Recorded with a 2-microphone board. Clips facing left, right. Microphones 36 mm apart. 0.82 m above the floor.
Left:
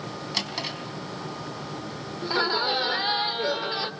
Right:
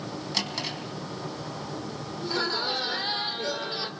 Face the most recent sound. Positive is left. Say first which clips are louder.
# left 4 dB
turn(degrees=20)  # may be behind; listen again after turning